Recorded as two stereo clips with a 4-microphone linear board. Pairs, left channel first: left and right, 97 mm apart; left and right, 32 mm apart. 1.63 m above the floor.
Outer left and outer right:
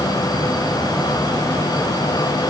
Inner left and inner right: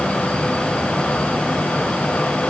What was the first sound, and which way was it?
Only background noise.